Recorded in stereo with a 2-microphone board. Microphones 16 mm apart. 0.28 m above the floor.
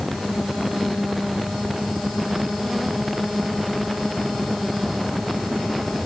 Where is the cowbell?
I don't hear a cowbell.